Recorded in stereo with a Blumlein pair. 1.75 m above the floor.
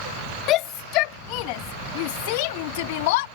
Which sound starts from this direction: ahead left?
A shout, at 0.5 s.